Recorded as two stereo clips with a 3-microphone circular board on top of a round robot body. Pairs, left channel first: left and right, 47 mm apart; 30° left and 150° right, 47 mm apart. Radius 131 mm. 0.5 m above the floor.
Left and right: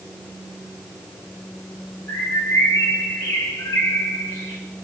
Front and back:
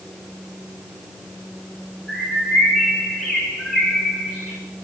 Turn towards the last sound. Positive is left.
turn(degrees=120)